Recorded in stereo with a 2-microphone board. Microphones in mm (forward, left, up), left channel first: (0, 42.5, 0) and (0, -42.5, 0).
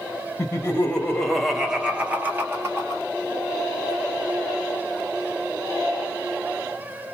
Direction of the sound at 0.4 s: 30° left (ahead or behind).